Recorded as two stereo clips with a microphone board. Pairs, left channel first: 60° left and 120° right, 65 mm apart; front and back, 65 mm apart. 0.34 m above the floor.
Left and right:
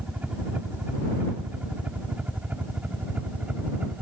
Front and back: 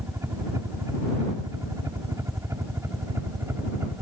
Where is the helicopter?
Straight behind; by 4.0 s 175° right.